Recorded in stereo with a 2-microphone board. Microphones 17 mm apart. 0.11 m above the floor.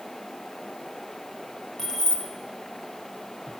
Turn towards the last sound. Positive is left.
turn(degrees=30)  # may be behind; listen again after turning